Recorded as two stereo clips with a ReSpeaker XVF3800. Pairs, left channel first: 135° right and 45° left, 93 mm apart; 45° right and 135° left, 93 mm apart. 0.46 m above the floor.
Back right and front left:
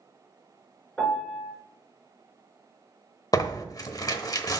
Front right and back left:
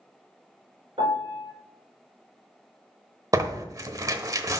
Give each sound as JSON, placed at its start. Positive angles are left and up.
{"t": 1.0, "sound": "a piano", "azimuth_deg": 145, "distance_m": 4.0}
{"t": 3.3, "sound": "tearing paper", "azimuth_deg": 180, "distance_m": 0.8}